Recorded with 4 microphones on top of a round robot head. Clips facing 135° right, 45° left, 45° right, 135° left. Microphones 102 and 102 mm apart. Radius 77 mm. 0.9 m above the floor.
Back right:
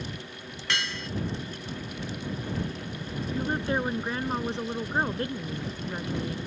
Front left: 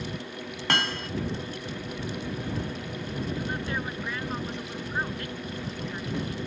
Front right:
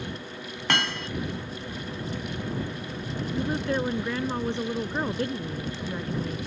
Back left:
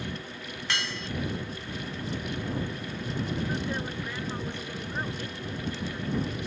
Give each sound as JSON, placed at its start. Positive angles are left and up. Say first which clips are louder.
{"t": 0.7, "sound": "hammering", "louder": "front left 5 dB, front right 7 dB", "azimuth_deg": -5}
{"t": 3.3, "sound": "a woman speaking", "louder": "back right 8 dB, front right 9 dB", "azimuth_deg": -75}